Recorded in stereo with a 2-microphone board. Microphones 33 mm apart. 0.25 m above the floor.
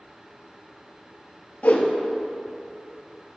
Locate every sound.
1.6 s a whoosh: 60° left (ahead or behind), 1.2 m